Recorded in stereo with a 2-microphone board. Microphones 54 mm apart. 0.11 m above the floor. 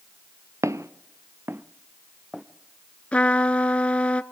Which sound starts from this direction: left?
A trumpet, at 3.1 s.